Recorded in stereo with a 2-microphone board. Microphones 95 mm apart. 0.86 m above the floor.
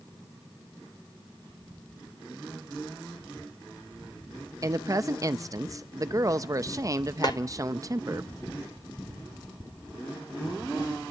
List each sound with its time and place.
4.6 s a woman speaking: 35° right (ahead or behind), 0.6 m
7.2 s a snare drum: 45° left (ahead or behind), 0.7 m